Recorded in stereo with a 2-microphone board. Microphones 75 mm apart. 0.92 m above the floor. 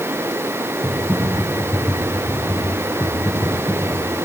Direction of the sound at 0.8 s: 45° left (ahead or behind).